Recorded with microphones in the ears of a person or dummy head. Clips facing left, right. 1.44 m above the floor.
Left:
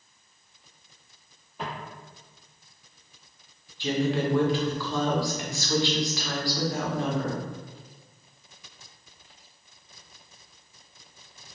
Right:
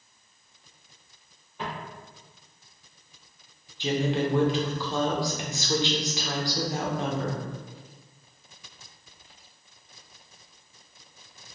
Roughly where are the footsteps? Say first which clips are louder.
Even; centre.